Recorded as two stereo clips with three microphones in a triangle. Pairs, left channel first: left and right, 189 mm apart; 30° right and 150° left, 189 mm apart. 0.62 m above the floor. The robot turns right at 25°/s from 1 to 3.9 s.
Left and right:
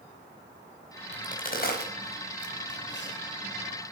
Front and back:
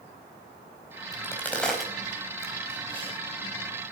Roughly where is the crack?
Ahead left.